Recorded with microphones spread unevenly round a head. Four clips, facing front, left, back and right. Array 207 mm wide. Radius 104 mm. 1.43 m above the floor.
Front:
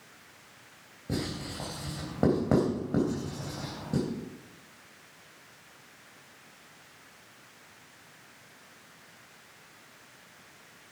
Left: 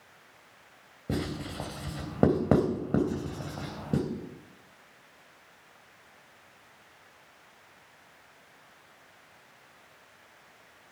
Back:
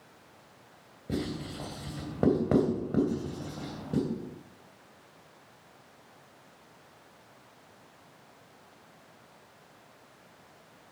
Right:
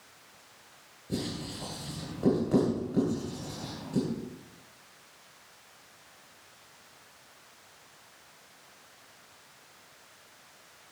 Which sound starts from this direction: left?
Writing, at 1.1 s.